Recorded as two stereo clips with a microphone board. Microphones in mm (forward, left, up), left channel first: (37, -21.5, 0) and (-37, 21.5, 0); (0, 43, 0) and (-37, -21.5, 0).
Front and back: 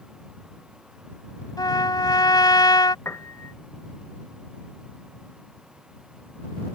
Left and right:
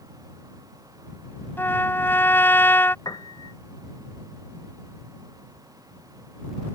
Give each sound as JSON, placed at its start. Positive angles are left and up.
{"t": 1.6, "sound": "a trumpet", "azimuth_deg": 0}
{"t": 3.0, "sound": "a piano", "azimuth_deg": 30}